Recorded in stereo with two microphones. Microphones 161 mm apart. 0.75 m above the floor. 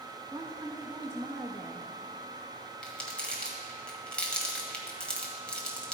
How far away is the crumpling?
About 1.6 m.